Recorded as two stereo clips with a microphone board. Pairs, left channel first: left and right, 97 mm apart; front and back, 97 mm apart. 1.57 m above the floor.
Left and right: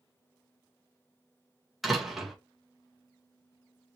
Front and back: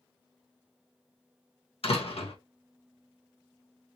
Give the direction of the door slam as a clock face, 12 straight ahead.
12 o'clock.